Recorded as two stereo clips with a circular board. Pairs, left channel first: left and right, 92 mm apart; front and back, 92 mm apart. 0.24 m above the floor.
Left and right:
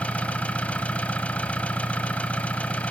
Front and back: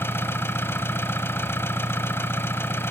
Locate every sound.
0.0 s an engine running: 30° left, 0.9 m